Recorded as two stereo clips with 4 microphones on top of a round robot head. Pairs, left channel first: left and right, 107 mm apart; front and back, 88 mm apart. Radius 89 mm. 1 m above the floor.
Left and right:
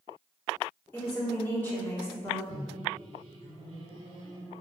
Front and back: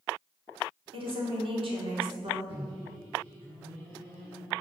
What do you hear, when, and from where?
0.9 s a woman speaking: 165° left, 2.5 m
2.5 s a microwave: 145° right, 3 m